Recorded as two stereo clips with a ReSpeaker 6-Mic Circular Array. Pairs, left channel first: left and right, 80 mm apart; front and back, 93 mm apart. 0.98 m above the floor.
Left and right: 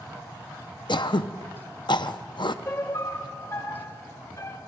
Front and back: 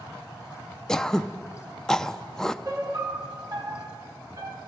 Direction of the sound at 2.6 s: 135° left.